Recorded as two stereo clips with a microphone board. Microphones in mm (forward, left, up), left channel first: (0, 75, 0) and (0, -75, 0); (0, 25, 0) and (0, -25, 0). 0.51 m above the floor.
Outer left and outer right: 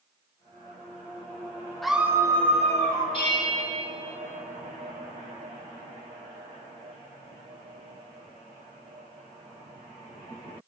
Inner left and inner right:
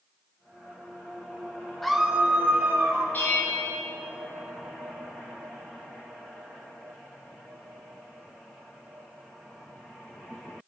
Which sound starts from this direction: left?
A bell, at 3.1 s.